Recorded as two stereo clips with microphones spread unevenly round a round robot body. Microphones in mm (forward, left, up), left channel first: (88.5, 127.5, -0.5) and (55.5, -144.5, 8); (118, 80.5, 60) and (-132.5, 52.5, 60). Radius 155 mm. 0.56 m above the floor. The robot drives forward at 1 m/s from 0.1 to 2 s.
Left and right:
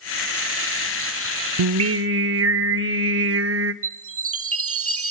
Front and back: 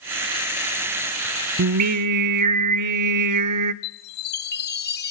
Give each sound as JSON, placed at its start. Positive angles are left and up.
{"t": 1.6, "sound": "singing", "azimuth_deg": -130, "distance_m": 0.5}
{"t": 3.8, "sound": "a chime", "azimuth_deg": -50, "distance_m": 0.9}